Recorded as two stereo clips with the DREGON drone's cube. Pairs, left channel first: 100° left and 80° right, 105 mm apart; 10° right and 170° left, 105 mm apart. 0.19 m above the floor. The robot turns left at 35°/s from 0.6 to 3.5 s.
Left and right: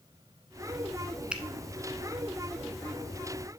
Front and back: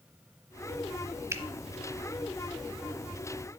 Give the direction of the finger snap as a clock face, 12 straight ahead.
5 o'clock.